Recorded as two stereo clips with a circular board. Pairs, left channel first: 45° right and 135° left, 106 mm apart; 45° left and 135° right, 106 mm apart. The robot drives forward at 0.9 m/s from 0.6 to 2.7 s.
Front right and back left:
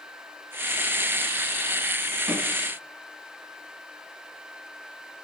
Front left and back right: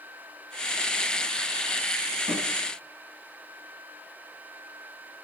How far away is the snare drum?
About 3 m.